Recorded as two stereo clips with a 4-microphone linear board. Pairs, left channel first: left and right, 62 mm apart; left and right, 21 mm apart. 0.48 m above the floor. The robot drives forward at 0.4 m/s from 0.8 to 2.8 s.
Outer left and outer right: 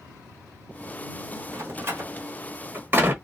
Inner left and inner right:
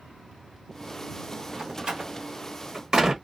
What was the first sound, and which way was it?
A door slam, 45° right (ahead or behind).